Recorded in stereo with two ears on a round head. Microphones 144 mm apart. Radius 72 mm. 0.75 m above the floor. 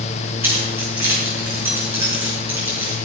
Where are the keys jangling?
15° right (ahead or behind), 5.5 m.